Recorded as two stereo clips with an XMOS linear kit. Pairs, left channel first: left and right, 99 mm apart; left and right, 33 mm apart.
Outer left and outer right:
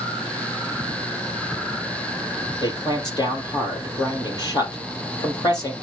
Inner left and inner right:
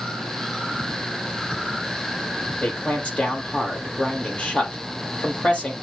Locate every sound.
2.6 s a man speaking: 40° left (ahead or behind), 4 m